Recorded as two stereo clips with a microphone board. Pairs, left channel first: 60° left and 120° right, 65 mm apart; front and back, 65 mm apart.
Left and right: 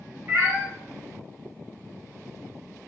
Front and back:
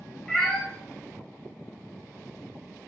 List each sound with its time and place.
0.3 s a cat meowing: 75° right, 1.0 m